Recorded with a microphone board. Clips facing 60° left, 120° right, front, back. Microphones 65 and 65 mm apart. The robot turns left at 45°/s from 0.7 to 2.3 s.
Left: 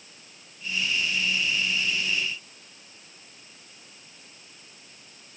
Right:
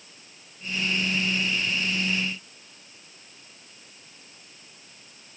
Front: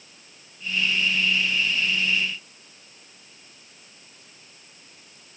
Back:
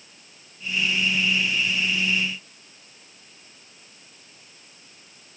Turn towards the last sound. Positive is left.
No sound to turn to.